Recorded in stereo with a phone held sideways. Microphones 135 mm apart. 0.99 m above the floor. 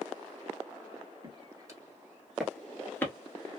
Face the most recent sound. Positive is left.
turn(degrees=20)  # may be behind; listen again after turning